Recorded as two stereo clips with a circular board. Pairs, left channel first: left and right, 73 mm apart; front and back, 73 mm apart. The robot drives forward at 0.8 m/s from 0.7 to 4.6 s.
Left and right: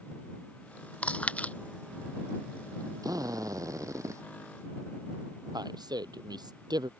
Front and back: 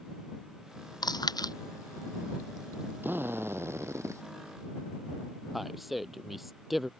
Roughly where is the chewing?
Ahead.